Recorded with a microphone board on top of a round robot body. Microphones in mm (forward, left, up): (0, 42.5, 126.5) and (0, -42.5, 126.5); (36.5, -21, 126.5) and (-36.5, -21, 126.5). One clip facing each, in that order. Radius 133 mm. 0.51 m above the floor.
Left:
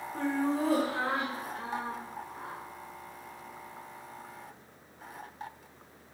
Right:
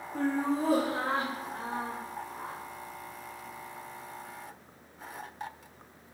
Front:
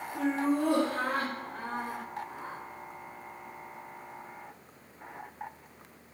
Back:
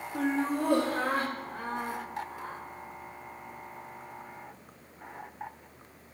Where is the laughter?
165° right, 1.9 m; by 2.6 s 60° right, 1.4 m.